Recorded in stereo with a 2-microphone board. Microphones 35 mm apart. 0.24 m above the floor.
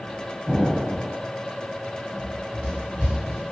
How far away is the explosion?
About 0.9 m.